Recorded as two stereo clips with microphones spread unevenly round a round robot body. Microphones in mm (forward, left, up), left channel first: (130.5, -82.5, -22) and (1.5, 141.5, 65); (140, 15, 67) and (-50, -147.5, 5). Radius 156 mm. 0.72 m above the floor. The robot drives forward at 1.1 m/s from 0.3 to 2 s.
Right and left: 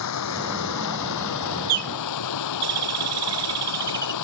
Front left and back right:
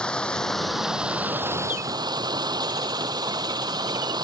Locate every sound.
0.0 s running water: 45° right; by 4.2 s 65° right
1.7 s a bird: 130° left; by 4.1 s 140° left